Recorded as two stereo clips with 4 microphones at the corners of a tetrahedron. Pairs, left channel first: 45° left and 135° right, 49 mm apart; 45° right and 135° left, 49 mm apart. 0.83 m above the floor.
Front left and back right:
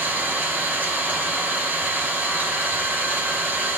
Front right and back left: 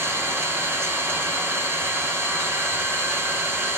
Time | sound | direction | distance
0.0 | an engine running | 170° left | 3 m